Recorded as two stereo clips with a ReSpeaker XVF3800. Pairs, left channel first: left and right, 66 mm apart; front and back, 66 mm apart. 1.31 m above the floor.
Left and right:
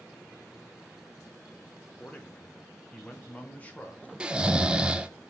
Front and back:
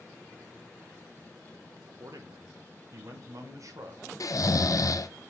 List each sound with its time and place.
2.0 s a man speaking: 155° left, 1.2 m
4.2 s snoring: 15° right, 0.5 m